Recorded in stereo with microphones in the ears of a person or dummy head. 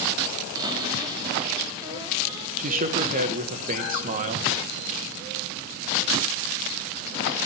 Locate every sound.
0.6 s a cupboard door: 20° right (ahead or behind), 3 m
2.6 s a man speaking: 45° right (ahead or behind), 1.5 m